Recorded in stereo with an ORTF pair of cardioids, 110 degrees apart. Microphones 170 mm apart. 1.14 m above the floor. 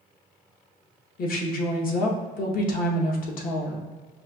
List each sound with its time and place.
1.2 s a woman speaking: 55° left, 1.0 m